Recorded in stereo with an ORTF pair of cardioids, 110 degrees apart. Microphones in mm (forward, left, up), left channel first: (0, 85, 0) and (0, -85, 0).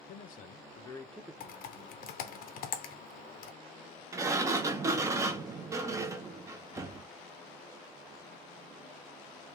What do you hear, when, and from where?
0.1 s a man speaking: 65° left, 0.8 m; by 2.4 s 40° right, 1.2 m
1.4 s typing on a keyboard: 70° left, 0.7 m
4.1 s a sliding door: 20° right, 0.6 m